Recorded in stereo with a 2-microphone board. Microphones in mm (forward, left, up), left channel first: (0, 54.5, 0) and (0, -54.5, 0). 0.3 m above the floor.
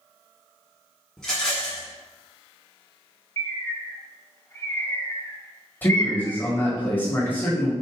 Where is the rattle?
5° left (ahead or behind), 1.2 m.